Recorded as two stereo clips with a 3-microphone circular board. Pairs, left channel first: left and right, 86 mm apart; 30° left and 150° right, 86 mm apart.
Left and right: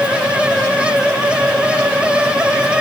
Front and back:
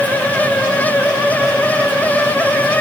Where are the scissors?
No scissors in this recording.